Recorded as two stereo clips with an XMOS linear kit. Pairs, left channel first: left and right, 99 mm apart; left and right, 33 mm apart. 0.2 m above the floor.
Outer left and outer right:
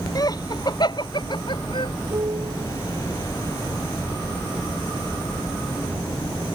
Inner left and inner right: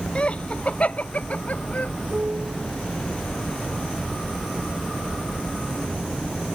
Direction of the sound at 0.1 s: 40° left (ahead or behind).